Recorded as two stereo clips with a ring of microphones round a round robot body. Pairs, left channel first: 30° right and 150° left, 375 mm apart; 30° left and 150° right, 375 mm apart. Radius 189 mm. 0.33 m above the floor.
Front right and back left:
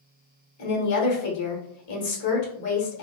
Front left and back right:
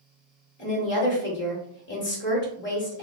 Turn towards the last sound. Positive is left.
turn(degrees=-20)